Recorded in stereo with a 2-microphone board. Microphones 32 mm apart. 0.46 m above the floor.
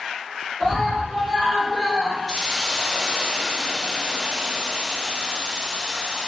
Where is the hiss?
25° right (ahead or behind), 0.6 m.